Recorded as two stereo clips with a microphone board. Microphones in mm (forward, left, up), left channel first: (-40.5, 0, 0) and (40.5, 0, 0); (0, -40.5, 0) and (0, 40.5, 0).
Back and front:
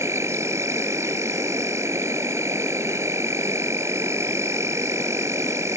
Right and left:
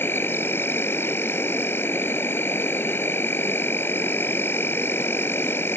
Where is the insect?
40° right.